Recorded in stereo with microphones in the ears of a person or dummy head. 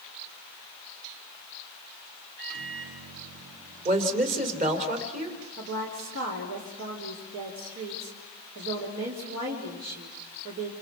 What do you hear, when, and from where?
2.4 s a microwave: 55° right (ahead or behind), 7.5 m
3.9 s a woman speaking: 40° right (ahead or behind), 3 m
5.6 s a woman speaking: 75° right (ahead or behind), 3.5 m